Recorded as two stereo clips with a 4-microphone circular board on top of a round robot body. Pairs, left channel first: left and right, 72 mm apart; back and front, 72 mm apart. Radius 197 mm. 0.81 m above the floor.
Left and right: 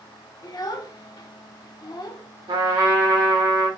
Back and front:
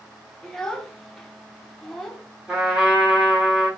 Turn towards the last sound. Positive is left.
turn(degrees=-80)